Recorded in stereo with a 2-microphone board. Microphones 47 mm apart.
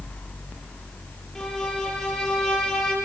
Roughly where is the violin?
Centre.